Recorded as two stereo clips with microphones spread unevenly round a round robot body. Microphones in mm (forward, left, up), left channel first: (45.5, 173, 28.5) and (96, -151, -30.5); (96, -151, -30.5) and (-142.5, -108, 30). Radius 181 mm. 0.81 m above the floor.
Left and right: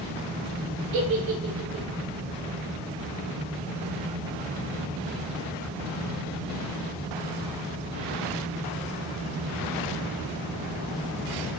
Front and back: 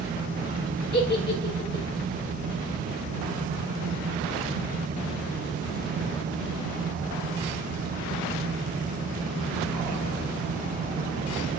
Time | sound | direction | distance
0.9 | a giggle | 50° right | 6 m